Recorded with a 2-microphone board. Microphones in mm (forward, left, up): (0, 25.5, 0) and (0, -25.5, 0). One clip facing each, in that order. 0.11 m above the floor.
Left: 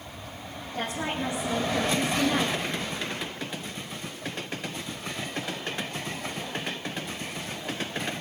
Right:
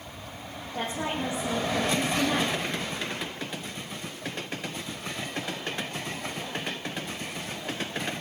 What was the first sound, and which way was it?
A woman speaking, 20° right (ahead or behind).